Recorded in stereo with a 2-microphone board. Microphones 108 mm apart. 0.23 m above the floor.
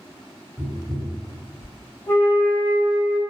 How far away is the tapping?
About 1.9 m.